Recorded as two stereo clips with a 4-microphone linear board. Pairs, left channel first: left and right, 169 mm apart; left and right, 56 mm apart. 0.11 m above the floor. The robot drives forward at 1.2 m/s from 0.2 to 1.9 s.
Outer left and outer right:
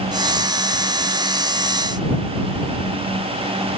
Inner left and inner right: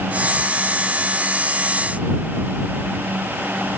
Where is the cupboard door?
No cupboard door in this recording.